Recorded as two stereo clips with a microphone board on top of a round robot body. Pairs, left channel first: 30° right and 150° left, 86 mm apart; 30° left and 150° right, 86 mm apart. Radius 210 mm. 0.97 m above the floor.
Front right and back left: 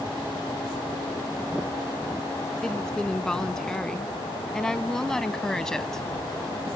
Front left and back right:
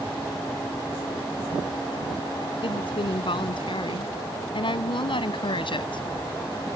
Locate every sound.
2.6 s a woman speaking: 55° left